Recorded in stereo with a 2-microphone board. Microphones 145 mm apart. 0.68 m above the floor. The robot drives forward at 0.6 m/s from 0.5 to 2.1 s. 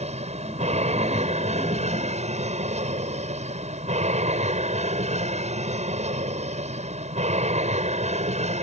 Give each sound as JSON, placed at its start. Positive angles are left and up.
{"t": 0.0, "sound": "an aircraft", "side_deg": -50}